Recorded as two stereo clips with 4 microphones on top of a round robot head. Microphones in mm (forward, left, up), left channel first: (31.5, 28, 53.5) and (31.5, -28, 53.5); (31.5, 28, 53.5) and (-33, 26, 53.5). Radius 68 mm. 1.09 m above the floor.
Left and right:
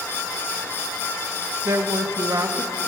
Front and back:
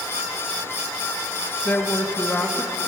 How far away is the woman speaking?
About 1.0 m.